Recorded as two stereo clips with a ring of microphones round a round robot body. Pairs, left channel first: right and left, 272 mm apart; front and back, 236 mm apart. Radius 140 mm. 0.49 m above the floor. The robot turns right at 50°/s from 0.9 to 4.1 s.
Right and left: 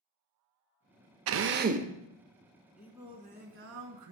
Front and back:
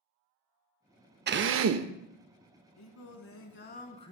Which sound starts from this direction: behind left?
A drill, at 1.3 s.